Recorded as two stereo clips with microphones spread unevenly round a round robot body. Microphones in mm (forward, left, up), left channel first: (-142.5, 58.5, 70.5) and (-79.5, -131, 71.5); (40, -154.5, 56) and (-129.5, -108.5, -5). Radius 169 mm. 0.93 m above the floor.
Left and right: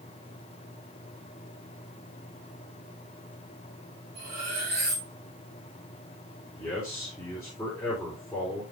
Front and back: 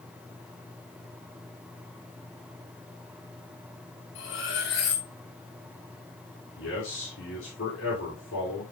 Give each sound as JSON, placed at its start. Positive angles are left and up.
{"t": 4.2, "sound": "cutlery clinking", "azimuth_deg": -5, "distance_m": 3.0}
{"t": 6.6, "sound": "a man speaking", "azimuth_deg": 20, "distance_m": 4.0}